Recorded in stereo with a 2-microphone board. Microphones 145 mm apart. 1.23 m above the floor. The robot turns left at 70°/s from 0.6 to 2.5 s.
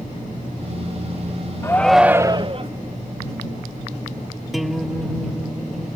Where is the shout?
20° left; by 2.7 s 40° right.